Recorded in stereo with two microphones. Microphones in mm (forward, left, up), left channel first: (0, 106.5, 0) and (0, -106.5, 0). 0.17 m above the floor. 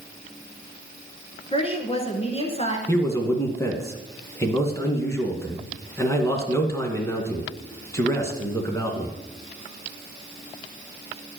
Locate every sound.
1.5 s a woman speaking: 30° left (ahead or behind), 2 m
2.9 s a man speaking: 15° left (ahead or behind), 2 m